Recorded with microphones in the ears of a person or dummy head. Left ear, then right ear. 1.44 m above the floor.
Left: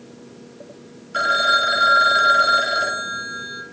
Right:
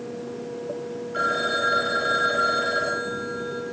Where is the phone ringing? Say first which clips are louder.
Left 7 dB; 45° left (ahead or behind), 4.5 m.